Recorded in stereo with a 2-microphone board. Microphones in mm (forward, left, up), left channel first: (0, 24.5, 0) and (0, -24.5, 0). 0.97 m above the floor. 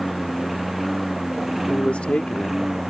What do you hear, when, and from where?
0.0 s a lawn mower: centre (ahead or behind); by 2.9 s 5° right (ahead or behind)
1.7 s a man speaking: 25° left (ahead or behind)